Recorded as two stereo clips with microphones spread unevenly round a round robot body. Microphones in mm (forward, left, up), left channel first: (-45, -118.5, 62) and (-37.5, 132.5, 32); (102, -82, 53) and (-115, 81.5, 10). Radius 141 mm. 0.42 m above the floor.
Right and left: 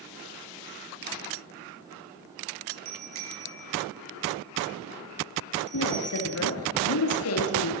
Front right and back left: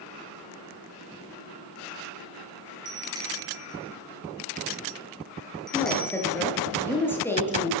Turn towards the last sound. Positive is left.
turn(degrees=-120)